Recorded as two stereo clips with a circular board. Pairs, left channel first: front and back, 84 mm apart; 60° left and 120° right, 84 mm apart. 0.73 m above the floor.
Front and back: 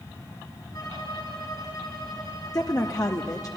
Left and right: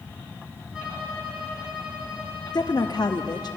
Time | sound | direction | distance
0.7 | a violin | 40° right | 6 m
2.5 | a woman speaking | 35° left | 0.9 m